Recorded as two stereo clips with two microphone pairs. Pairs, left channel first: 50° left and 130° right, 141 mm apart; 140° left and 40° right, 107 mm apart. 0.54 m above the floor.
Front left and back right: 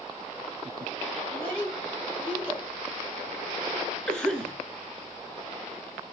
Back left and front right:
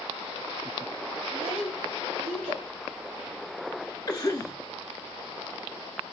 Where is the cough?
125° left, 1.3 m.